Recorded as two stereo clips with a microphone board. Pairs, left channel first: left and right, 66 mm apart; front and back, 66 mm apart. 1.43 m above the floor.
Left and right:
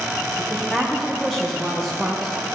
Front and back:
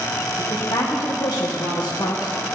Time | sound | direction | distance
0.4 | a woman speaking | 5° left | 1.0 m